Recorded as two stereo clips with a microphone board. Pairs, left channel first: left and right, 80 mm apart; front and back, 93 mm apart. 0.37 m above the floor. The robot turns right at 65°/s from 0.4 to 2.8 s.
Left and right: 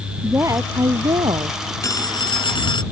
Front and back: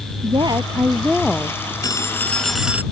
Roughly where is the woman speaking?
Behind right.